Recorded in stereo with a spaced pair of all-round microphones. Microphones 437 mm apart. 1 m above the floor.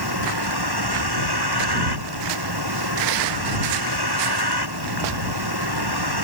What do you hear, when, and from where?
0.0 s a vehicle: 60° right (ahead or behind)